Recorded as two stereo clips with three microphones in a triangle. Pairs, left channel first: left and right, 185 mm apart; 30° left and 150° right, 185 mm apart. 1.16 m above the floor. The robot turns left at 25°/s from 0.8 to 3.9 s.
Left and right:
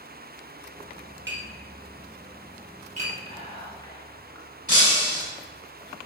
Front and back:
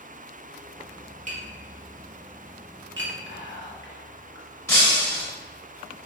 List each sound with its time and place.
1.3 s tapping: 100° right, 1.5 m; by 3.1 s 145° right, 1.5 m
3.3 s whispering: 35° left, 1.1 m; by 4.5 s 20° left, 1.1 m
4.7 s breaking glass: 45° right, 1.9 m